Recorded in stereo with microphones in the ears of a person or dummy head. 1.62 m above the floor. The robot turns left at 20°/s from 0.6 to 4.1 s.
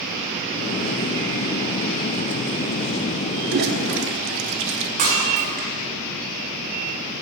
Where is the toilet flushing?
50° right (ahead or behind), 0.8 m; by 4.9 s 60° right (ahead or behind), 0.8 m.